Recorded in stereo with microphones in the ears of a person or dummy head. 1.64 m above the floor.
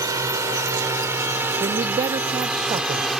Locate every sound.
0.0 s a drone: 20° right (ahead or behind); by 3.2 s 5° right (ahead or behind)
1.6 s a man speaking: 20° right (ahead or behind)